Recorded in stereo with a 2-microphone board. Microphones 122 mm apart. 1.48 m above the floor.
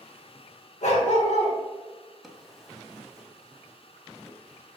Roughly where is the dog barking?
Left.